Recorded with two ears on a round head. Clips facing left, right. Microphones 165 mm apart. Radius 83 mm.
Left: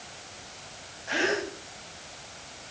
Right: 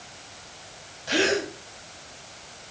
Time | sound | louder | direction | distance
1.1 | a gasp | right 4 dB | 45° right (ahead or behind) | 4 m